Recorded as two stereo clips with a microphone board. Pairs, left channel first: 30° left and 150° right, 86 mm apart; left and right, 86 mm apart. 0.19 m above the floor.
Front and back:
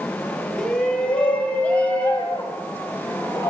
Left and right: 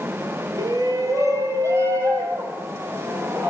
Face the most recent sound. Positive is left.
turn(degrees=-35)